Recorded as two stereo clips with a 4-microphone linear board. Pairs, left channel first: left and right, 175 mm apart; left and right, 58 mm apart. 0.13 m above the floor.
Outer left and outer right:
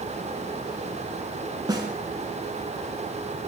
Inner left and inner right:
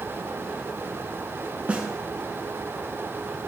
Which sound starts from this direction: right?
A snare drum, at 1.7 s.